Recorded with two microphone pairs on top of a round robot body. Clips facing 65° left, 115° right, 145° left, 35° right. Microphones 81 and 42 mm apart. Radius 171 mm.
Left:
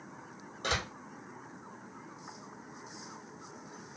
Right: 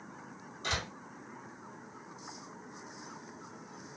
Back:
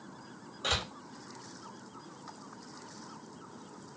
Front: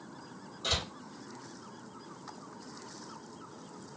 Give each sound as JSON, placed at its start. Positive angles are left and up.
{"t": 0.6, "sound": "a door slam", "azimuth_deg": 105, "distance_m": 2.5}